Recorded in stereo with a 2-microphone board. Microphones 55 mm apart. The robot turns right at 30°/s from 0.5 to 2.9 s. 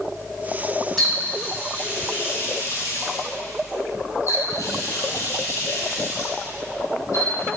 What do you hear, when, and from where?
1.0 s a running tap: 5° left (ahead or behind), 3.5 m; by 7.5 s 65° left (ahead or behind), 3.5 m